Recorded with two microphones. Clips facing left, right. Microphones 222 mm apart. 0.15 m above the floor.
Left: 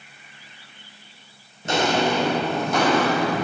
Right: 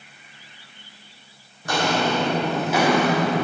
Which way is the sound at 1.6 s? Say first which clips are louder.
Left 1 dB; 25° left (ahead or behind).